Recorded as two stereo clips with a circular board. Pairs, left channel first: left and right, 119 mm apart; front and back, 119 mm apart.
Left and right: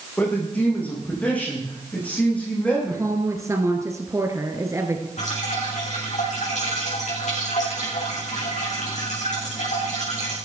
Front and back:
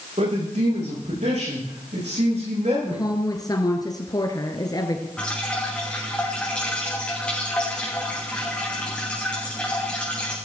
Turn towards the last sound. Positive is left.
turn(degrees=80)